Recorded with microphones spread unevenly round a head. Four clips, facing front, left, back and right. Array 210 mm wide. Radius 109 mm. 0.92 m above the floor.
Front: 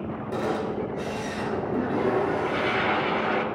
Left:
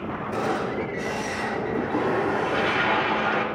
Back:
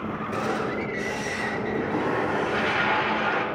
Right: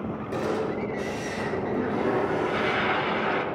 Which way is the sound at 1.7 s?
30° right.